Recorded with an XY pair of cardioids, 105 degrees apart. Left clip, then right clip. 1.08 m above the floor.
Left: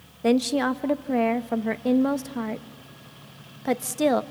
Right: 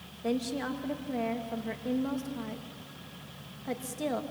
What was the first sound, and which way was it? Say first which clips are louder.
A woman speaking: left 10 dB; 65° left.